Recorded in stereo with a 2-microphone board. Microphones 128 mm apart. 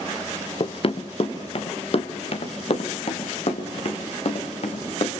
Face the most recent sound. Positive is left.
turn(degrees=55)  # may be behind; listen again after turning